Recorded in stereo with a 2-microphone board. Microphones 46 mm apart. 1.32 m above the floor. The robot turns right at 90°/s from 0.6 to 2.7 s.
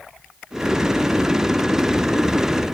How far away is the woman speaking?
I don't hear a woman speaking.